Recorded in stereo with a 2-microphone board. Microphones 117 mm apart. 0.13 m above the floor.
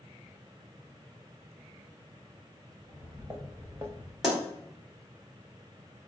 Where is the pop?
5° right (ahead or behind), 2.5 m.